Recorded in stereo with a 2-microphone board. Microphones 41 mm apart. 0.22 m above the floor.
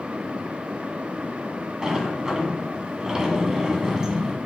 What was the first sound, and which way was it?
A sliding door, 15° right (ahead or behind).